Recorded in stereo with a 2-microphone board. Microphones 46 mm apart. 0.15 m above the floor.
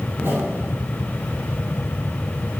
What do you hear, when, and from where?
0.1 s a whoosh: 50° right (ahead or behind), 2.5 m